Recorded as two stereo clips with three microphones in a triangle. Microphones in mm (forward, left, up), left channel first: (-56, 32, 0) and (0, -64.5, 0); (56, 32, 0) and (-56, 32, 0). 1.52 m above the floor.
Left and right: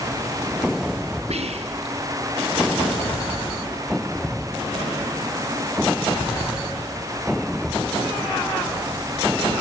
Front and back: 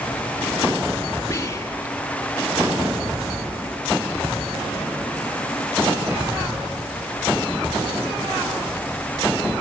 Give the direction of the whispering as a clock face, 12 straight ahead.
2 o'clock.